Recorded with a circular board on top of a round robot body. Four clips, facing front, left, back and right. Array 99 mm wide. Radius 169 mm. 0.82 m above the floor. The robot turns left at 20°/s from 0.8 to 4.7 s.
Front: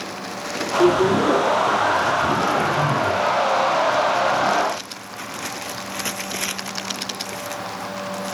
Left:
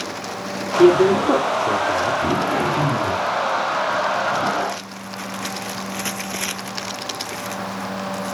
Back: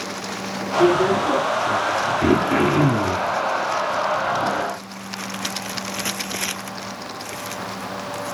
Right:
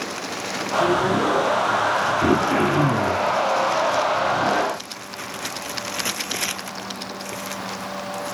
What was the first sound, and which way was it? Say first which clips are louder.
A man speaking: left 7 dB, front 1 dB; 90° left.